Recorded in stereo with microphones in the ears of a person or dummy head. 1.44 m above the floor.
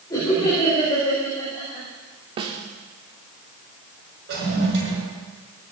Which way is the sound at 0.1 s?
15° left (ahead or behind).